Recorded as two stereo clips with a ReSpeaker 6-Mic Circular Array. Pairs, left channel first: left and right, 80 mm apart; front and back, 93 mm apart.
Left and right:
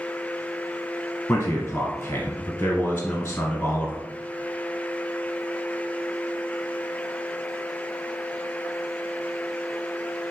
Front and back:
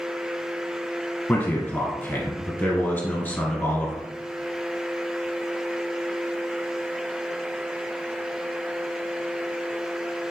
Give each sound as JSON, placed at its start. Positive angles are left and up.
{"t": 1.3, "sound": "a man speaking", "azimuth_deg": 35, "distance_m": 1.3}